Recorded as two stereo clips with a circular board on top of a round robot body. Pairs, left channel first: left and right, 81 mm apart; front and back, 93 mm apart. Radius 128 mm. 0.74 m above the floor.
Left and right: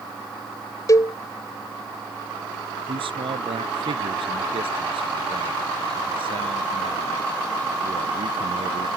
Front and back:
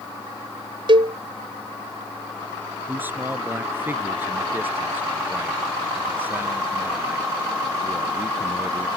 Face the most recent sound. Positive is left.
turn(degrees=-110)